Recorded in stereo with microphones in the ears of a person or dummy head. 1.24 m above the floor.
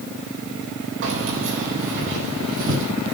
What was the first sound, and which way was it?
Keys jangling, 55° right (ahead or behind).